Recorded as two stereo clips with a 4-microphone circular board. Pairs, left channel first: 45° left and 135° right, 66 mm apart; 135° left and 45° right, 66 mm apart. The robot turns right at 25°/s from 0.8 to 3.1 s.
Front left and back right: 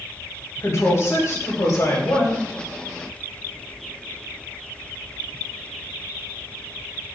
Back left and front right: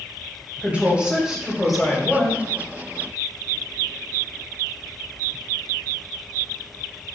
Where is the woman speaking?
20° left, 1.8 m; by 2.4 s 60° left, 1.8 m.